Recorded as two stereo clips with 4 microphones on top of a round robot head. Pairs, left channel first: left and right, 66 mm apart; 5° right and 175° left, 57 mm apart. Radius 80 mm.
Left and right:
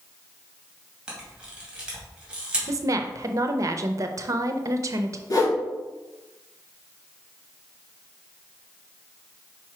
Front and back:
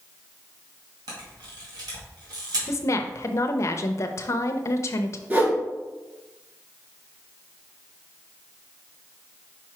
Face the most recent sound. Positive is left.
turn(degrees=120)